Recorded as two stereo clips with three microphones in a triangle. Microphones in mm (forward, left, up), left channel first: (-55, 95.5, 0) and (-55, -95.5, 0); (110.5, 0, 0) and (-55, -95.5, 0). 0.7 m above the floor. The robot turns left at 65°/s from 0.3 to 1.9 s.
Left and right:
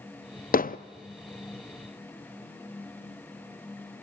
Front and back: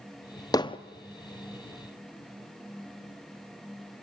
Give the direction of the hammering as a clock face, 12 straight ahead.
9 o'clock.